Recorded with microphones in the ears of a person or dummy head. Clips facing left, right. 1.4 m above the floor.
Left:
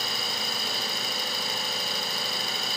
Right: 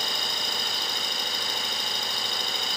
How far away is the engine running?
About 5.5 m.